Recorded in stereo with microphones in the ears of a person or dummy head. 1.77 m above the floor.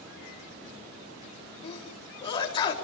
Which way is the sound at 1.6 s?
25° left (ahead or behind).